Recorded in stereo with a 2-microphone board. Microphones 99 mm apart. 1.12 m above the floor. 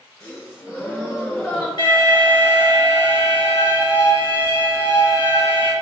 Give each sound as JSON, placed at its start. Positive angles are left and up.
{"t": 0.2, "sound": "a gasp", "side_deg": 25, "distance_m": 1.3}
{"t": 1.8, "sound": "an alarm", "side_deg": 50, "distance_m": 1.0}